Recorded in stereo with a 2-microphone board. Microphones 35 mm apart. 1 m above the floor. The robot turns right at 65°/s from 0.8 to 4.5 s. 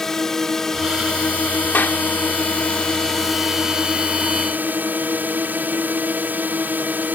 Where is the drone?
15° left; by 7.2 s 105° right.